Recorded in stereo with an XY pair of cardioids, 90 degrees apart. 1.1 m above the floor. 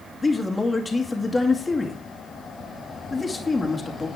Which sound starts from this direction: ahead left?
A man speaking, at 0.2 s.